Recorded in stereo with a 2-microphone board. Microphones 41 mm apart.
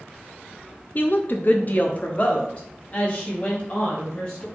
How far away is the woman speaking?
About 0.5 m.